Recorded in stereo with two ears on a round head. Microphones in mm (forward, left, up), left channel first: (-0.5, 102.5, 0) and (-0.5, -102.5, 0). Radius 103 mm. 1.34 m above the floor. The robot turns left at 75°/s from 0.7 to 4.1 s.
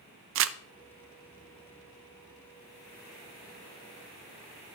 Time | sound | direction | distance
0.3 | crumpling | 55° right (ahead or behind) | 0.5 m